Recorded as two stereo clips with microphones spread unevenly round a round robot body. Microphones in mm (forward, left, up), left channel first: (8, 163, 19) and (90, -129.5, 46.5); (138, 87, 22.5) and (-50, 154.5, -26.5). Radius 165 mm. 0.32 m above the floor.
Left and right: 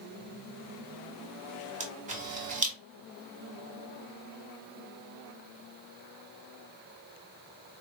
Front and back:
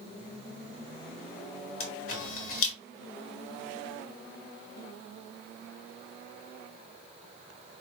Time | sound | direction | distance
1.8 | a camera shutter | 5° right | 1.4 m